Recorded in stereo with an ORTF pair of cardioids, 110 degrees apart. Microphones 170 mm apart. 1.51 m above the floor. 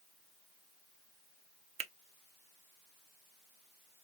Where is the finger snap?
35° right, 0.6 m.